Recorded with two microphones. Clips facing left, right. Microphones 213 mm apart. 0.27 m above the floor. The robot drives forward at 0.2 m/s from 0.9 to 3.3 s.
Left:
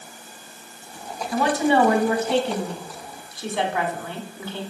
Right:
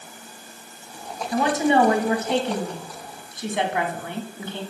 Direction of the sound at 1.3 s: 20° right (ahead or behind).